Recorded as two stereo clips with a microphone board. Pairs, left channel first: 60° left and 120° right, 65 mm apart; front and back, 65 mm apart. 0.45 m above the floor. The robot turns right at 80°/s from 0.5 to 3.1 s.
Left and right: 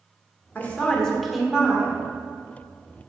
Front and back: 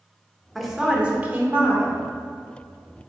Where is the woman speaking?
95° left, 1.1 m; by 2.0 s 155° right, 1.1 m.